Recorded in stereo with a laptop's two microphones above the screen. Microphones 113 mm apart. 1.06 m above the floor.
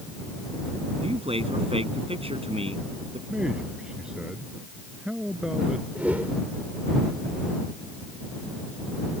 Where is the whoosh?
15° right (ahead or behind).